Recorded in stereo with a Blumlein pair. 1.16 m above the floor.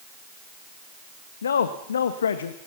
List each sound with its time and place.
1.4 s a man speaking: 65° left, 1.0 m